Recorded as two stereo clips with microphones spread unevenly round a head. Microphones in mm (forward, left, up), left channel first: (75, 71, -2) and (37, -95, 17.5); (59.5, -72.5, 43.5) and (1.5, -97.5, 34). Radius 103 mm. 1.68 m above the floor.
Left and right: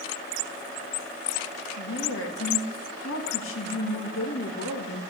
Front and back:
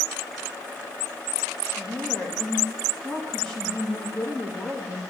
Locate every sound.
1.8 s a woman speaking: 105° left, 2 m